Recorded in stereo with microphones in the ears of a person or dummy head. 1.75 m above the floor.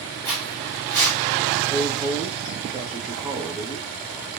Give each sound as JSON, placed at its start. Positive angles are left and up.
{"t": 0.2, "sound": "footsteps", "side_deg": 10, "distance_m": 2.5}
{"t": 1.7, "sound": "a woman speaking", "side_deg": -5, "distance_m": 1.2}